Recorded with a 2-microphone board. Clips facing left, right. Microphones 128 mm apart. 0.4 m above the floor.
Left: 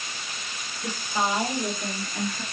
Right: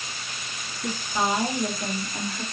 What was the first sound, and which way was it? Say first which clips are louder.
A woman speaking: right 1 dB; 5° left (ahead or behind).